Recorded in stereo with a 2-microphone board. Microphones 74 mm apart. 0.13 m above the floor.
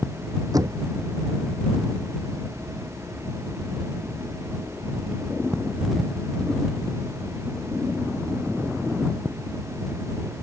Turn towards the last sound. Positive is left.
turn(degrees=-60)  # may be behind; listen again after turning